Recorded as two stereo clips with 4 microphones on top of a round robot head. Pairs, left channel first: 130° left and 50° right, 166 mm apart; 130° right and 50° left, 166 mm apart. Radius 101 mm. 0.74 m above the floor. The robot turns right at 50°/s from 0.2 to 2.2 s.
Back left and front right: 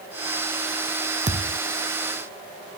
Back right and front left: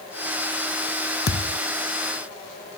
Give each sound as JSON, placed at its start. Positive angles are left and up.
{"t": 1.3, "sound": "a thud", "azimuth_deg": -100}